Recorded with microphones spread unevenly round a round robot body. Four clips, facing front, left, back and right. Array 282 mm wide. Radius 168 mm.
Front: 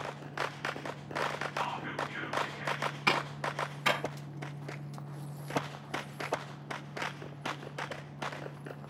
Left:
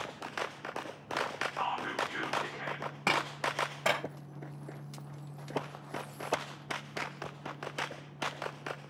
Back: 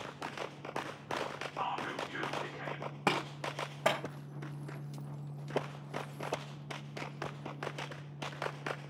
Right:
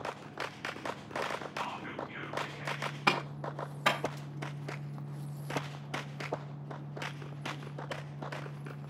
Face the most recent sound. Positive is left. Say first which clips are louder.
# left 1 dB, front 1 dB
turn(degrees=155)